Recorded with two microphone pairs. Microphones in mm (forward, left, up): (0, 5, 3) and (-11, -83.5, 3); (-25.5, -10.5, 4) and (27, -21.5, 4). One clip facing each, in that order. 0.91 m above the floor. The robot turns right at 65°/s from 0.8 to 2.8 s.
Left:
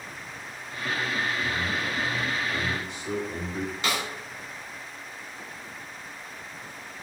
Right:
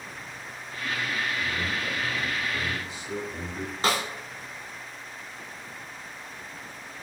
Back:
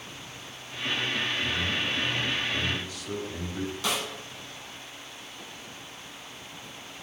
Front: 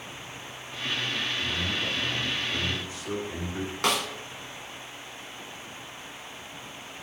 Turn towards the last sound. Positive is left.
turn(degrees=-45)